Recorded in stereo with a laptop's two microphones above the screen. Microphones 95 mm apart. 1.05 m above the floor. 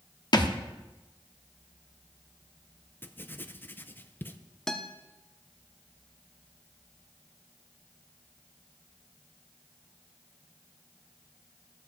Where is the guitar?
5° left (ahead or behind), 0.7 m.